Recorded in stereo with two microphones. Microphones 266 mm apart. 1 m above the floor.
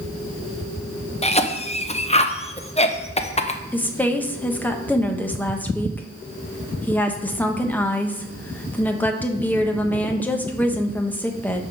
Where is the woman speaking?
5° left (ahead or behind), 1.0 m.